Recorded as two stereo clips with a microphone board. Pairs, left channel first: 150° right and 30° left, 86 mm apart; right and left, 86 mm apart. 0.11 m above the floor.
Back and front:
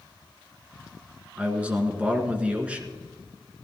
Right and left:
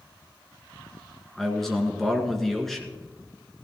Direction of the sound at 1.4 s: 10° right.